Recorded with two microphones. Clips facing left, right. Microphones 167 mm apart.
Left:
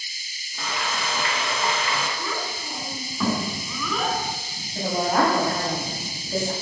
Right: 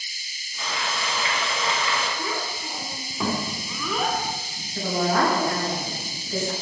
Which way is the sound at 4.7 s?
35° left (ahead or behind).